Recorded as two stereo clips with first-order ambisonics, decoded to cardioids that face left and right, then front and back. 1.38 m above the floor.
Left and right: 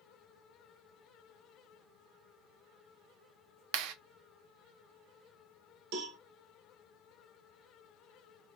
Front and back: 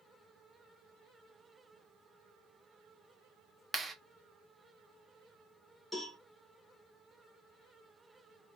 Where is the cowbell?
85° right, 1.3 m.